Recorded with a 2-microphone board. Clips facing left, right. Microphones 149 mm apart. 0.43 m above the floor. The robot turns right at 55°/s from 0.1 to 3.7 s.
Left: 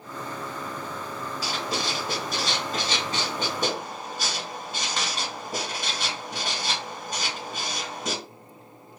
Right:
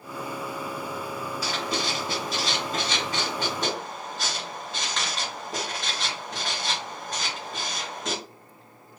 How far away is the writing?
About 1.6 m.